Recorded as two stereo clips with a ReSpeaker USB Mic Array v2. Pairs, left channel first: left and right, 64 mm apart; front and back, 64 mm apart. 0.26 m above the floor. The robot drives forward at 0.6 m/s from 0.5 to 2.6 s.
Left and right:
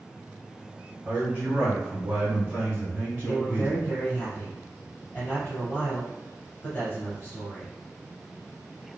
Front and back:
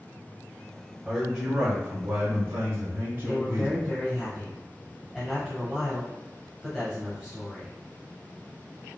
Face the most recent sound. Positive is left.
turn(degrees=80)